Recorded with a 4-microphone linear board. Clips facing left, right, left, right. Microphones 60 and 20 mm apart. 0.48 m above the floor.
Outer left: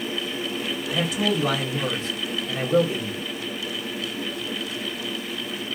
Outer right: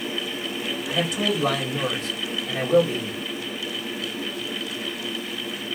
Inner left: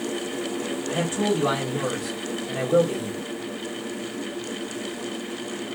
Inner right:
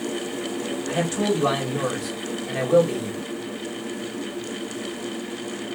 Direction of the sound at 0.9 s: 60° right (ahead or behind).